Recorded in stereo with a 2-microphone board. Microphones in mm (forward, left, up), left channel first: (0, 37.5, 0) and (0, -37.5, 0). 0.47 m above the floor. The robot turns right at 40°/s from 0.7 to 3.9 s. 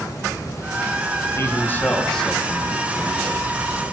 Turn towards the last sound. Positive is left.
turn(degrees=-120)